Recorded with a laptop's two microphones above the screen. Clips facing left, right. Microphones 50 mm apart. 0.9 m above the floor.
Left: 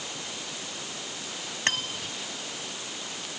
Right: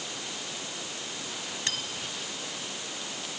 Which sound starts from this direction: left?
Cutlery clinking, at 1.7 s.